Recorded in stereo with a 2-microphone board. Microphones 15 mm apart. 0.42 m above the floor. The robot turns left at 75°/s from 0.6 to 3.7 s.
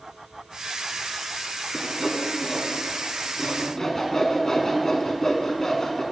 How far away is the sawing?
About 0.8 m.